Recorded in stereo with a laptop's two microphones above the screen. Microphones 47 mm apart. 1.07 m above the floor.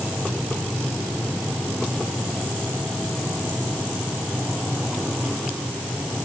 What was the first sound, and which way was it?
Only background noise.